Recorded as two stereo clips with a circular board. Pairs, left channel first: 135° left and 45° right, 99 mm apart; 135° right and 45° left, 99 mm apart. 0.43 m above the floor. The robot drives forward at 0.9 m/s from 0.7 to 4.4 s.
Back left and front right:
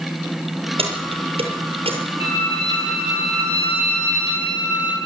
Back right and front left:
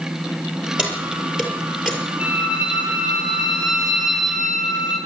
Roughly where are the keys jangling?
Ahead right.